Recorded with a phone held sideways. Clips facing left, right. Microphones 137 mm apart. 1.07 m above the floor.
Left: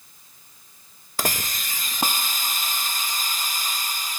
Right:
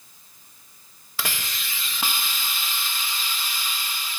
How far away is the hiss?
About 0.8 m.